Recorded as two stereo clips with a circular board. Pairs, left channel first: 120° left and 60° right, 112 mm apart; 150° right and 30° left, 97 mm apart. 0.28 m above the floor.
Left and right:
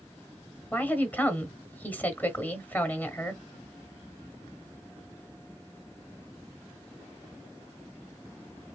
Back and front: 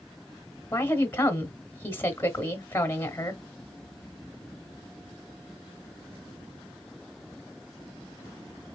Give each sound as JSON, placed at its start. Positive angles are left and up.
{"t": 0.7, "sound": "a woman speaking", "azimuth_deg": 170, "distance_m": 1.0}